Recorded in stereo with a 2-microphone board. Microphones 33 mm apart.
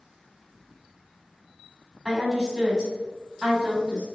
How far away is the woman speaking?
About 1.2 m.